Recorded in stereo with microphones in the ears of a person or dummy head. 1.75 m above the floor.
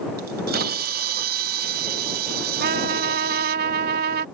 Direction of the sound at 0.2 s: 45° right (ahead or behind).